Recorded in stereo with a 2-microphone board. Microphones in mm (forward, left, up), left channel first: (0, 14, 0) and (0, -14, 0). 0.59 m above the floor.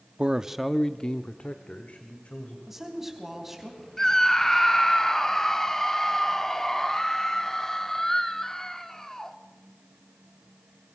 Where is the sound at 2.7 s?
10° right (ahead or behind), 4 m.